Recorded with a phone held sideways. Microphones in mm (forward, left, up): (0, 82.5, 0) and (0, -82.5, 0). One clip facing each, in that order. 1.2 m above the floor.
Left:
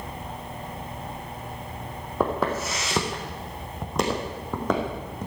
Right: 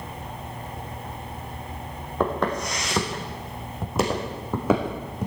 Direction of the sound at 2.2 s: 5° left (ahead or behind).